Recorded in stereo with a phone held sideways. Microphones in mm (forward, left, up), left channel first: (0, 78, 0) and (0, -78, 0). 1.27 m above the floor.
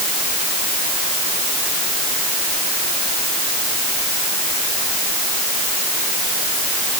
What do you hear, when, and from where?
Only background noise.